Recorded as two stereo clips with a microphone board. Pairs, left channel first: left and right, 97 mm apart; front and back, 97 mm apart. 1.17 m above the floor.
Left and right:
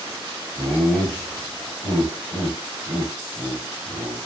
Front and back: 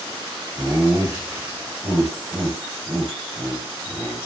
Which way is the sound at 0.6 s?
120° right.